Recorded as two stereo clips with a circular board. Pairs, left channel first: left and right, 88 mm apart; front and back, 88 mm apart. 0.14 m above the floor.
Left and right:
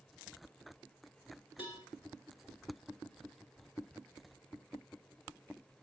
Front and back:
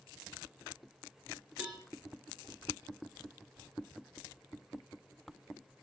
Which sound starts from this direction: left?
A cowbell, at 1.6 s.